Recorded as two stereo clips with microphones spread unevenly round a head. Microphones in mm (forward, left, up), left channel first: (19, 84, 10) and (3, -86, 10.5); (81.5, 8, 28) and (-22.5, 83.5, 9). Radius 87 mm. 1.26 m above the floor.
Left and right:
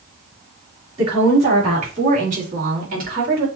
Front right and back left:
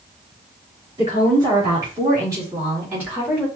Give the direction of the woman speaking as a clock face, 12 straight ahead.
5 o'clock.